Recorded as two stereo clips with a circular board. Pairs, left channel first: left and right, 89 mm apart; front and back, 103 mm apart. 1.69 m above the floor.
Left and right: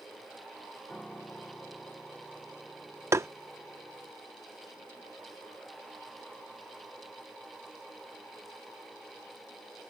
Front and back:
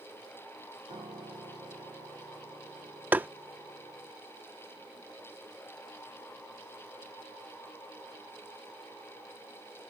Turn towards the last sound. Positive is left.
turn(degrees=-120)